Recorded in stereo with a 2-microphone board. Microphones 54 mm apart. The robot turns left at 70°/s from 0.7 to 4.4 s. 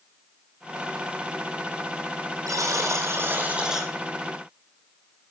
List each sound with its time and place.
2.5 s a buzzer: 80° right, 2.5 m; by 3.9 s straight behind, 2.5 m